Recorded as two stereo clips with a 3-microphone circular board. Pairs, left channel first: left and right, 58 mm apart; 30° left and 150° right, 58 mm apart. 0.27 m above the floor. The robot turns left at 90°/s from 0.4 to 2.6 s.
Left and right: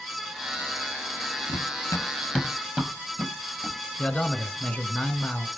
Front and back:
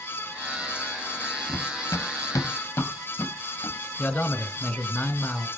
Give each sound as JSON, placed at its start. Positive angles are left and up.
{"t": 1.5, "sound": "running footsteps", "azimuth_deg": 80, "distance_m": 2.0}
{"t": 4.0, "sound": "a man speaking", "azimuth_deg": 25, "distance_m": 1.5}